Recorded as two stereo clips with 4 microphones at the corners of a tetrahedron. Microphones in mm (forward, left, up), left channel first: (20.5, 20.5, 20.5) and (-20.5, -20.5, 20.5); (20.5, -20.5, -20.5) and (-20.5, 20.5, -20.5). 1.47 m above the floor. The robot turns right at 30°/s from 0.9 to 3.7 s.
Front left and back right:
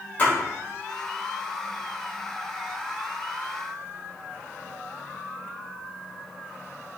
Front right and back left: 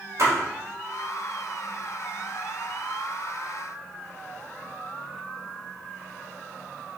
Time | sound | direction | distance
0.2 | a splash | 110° left | 3.5 m